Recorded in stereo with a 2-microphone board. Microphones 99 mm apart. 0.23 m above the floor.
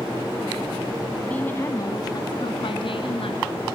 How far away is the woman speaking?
About 2 m.